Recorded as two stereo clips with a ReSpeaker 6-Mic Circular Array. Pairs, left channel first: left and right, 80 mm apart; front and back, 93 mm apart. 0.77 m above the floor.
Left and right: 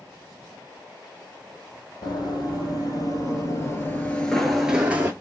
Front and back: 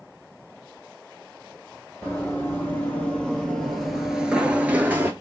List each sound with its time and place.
2.0 s running footsteps: 70° left, 1.6 m; by 5.1 s 135° right, 0.8 m